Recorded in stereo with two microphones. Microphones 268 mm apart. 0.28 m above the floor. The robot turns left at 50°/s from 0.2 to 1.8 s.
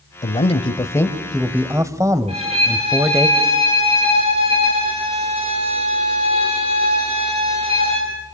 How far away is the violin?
About 6.5 m.